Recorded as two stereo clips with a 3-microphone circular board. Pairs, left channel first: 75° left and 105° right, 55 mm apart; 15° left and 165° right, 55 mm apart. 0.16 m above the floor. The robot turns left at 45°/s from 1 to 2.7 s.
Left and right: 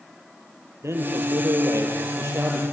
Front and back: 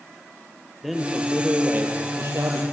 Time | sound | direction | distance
0.8 | a man speaking | 75° right | 4.5 m